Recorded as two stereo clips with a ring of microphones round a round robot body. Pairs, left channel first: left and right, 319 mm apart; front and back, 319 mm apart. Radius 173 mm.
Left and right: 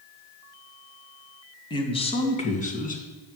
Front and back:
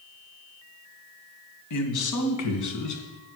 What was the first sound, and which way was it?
A man speaking, 15° left.